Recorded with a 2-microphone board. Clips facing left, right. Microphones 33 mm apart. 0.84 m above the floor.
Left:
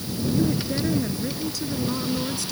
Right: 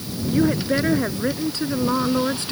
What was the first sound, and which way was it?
A woman speaking, 50° right (ahead or behind).